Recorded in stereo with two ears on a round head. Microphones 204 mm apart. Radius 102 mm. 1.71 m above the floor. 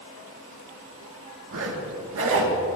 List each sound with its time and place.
1.5 s a zipper: 60° right (ahead or behind), 1.6 m